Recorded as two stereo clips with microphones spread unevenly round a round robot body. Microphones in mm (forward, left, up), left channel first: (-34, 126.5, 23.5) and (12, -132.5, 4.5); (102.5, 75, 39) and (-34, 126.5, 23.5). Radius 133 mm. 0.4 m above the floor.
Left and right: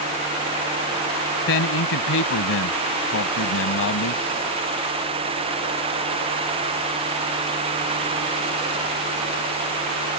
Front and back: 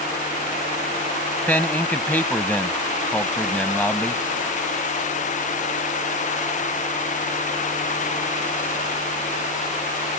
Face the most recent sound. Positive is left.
turn(degrees=60)